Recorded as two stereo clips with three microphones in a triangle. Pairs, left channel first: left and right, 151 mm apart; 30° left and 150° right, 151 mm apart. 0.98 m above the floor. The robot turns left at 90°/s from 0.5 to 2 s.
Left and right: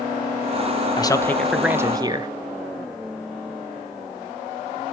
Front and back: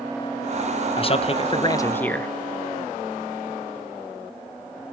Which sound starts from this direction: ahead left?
A man speaking, at 1.0 s.